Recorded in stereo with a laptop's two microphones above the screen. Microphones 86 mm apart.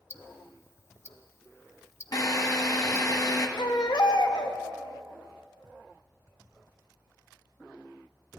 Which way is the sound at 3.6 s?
60° left (ahead or behind).